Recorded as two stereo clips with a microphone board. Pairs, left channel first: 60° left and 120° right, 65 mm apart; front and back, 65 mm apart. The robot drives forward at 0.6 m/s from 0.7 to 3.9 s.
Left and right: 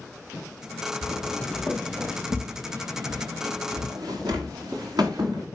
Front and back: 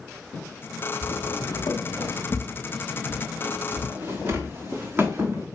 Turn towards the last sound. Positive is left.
turn(degrees=-125)